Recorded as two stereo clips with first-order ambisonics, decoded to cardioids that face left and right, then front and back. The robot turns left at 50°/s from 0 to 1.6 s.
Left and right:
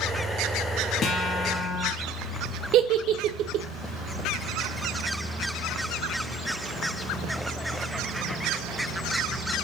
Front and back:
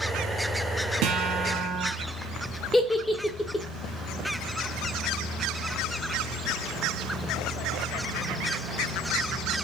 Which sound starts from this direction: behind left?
A guitar, at 1.0 s.